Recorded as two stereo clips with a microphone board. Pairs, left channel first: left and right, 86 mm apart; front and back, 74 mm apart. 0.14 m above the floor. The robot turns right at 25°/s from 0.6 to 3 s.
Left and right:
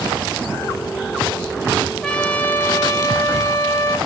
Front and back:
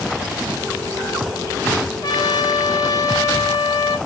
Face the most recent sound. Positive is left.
turn(degrees=35)